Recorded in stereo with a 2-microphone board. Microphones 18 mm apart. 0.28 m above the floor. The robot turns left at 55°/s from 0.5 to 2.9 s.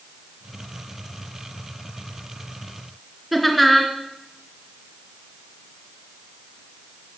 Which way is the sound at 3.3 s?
5° right (ahead or behind).